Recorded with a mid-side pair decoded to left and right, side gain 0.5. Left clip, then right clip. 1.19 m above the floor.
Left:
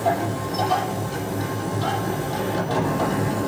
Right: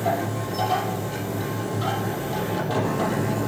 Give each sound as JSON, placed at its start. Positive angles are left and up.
{"t": 0.0, "sound": "a machine running", "azimuth_deg": -15, "distance_m": 6.0}